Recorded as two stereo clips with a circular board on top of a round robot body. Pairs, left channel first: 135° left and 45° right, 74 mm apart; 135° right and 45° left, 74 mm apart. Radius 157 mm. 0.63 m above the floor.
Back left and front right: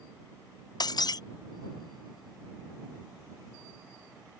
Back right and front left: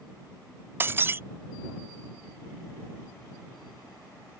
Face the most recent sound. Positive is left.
turn(degrees=105)